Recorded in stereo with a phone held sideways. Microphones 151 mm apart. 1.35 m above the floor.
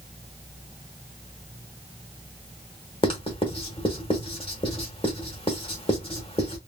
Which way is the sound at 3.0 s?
35° left (ahead or behind).